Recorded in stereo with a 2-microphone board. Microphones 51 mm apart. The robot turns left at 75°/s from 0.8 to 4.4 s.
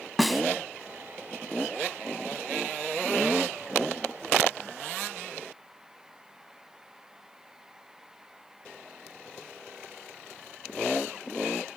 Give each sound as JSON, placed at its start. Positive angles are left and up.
{"t": 0.2, "sound": "a snare drum", "side_deg": 0}